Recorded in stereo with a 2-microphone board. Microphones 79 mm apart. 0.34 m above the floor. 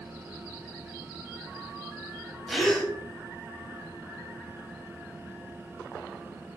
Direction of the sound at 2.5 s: 5° left (ahead or behind).